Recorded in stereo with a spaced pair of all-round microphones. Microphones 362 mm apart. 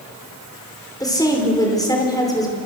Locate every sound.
1.0 s a woman speaking: 10° left (ahead or behind), 5 m